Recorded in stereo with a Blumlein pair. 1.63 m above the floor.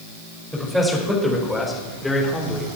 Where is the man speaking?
Straight ahead, 4.5 m; by 2.7 s 15° left, 2.5 m.